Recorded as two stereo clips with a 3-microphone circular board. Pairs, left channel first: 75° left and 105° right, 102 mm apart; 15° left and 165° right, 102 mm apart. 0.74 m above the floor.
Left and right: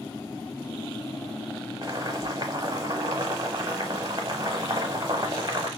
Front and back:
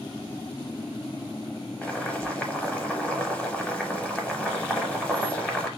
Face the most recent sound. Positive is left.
turn(degrees=-60)